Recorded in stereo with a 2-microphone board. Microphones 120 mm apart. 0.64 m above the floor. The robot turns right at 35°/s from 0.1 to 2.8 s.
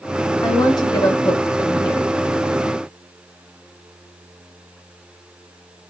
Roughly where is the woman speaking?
Ahead left.